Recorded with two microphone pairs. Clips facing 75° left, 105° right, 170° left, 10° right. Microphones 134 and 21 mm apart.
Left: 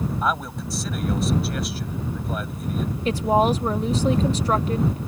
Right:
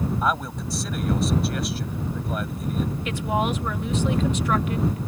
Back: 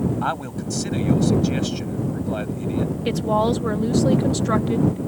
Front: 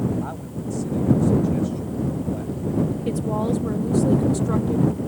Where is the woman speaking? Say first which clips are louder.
Left 9 dB, back 3 dB; 130° left.